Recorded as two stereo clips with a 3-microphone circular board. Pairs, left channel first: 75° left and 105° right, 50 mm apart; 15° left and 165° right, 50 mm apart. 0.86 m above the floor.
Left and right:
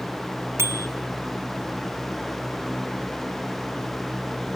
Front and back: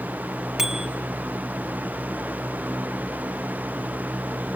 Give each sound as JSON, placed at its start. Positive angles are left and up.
{"t": 0.6, "sound": "a bicycle bell", "azimuth_deg": -85, "distance_m": 3.5}